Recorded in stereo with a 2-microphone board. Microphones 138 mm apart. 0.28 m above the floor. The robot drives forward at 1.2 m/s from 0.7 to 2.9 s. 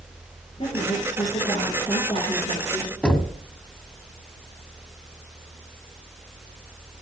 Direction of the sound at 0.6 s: 40° left (ahead or behind).